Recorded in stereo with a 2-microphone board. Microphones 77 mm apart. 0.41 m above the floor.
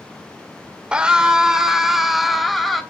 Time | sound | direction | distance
0.9 | a scream | 15° right (ahead or behind) | 1.3 m